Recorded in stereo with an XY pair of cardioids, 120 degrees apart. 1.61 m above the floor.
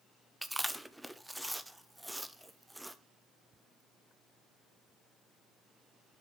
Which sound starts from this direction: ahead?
Chewing, at 0.4 s.